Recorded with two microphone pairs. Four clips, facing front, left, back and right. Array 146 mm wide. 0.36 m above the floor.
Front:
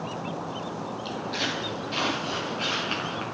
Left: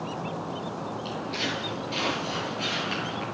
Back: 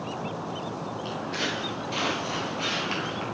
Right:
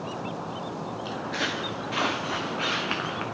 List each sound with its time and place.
1.1 s footsteps: 105° right, 3.5 m; by 3.2 s 80° right, 4 m